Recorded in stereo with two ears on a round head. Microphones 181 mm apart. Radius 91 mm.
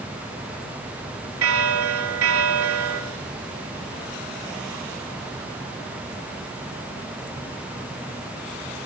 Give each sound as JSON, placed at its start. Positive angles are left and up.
{"t": 1.4, "sound": "a bell", "side_deg": -75, "distance_m": 2.5}